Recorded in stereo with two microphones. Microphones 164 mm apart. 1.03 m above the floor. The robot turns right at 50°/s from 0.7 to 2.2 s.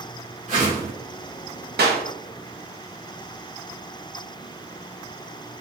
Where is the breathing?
I don't hear breathing.